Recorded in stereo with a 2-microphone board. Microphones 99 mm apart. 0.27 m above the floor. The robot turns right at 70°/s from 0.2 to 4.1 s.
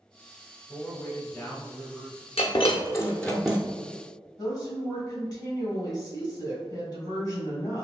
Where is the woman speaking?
40° left (ahead or behind), 1.5 m.